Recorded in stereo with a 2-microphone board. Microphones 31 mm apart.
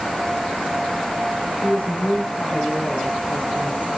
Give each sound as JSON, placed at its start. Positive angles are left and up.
{"t": 1.6, "sound": "a woman speaking", "side_deg": 50, "distance_m": 6.5}